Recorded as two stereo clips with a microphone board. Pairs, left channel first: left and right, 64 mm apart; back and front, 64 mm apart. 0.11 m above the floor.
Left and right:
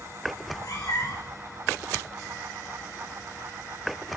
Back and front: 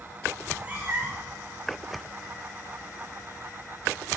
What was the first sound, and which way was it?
A cat meowing, 65° left.